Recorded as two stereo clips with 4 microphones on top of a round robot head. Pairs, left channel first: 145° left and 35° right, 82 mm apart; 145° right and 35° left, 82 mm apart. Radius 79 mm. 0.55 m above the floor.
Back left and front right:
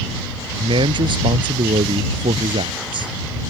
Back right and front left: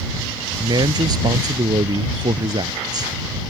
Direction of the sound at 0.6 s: 5° right.